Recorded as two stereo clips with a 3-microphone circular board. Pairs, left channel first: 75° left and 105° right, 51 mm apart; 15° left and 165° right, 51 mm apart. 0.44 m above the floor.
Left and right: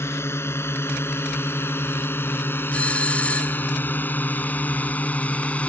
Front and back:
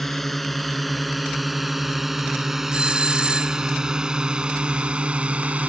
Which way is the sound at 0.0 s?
100° left.